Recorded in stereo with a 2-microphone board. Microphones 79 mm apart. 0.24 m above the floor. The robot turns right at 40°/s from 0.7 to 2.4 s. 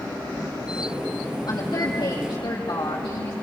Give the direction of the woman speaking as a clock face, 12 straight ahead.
10 o'clock.